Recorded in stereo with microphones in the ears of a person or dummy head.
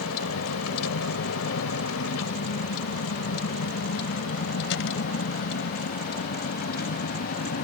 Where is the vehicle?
80° left; by 7.7 s 50° left (ahead or behind).